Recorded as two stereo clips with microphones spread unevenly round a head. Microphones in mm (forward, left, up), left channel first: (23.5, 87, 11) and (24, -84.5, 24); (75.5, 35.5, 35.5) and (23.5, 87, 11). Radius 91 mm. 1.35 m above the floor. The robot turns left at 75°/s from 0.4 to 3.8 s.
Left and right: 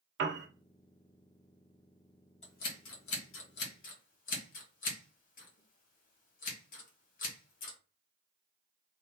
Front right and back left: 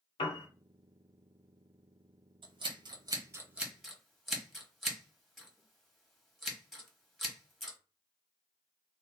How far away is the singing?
I don't hear singing.